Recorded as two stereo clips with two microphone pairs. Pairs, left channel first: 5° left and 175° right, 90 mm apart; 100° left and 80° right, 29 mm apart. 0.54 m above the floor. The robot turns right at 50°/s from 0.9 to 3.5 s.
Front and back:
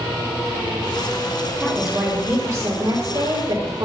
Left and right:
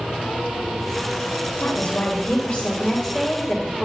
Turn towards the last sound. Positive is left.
turn(degrees=180)